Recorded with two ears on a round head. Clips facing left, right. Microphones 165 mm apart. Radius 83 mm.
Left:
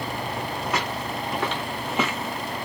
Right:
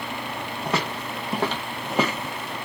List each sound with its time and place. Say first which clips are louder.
0.7 s footsteps: right 3 dB; 25° right (ahead or behind), 1.6 m